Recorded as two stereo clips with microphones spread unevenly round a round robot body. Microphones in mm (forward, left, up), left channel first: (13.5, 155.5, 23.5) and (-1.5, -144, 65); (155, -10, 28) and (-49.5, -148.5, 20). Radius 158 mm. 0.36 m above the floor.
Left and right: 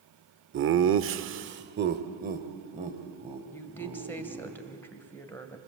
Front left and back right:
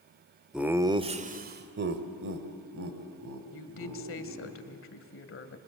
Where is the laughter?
60° right, 1.1 m; by 4.5 s 170° right, 3 m.